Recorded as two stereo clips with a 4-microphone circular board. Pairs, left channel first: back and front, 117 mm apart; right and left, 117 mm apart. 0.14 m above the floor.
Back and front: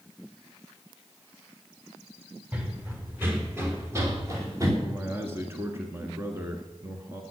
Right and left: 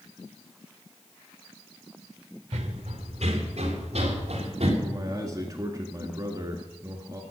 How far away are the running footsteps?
About 2.5 m.